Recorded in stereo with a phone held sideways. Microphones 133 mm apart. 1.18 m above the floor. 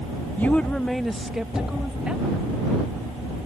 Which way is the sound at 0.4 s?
15° left (ahead or behind).